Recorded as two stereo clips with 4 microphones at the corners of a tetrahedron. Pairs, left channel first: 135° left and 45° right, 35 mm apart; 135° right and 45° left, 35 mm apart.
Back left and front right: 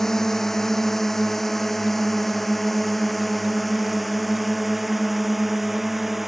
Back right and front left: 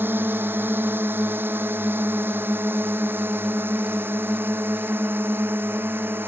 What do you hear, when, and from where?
0.0 s a drone: 55° left; by 6.3 s 40° left